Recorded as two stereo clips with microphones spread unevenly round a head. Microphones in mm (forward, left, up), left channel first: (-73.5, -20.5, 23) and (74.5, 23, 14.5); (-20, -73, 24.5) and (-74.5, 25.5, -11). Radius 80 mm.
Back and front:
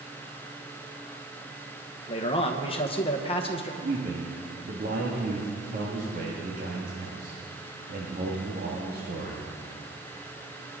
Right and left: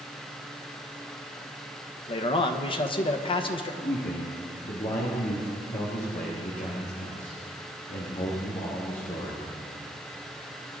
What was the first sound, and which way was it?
A man speaking, 110° right.